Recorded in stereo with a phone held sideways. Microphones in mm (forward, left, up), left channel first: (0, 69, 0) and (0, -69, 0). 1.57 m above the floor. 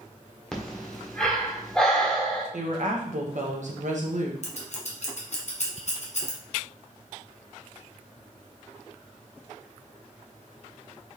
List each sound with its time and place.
0.5 s breathing: 5° left (ahead or behind), 0.9 m
2.5 s a woman speaking: 65° right (ahead or behind), 1.0 m
4.4 s scissors: 55° left (ahead or behind), 1.0 m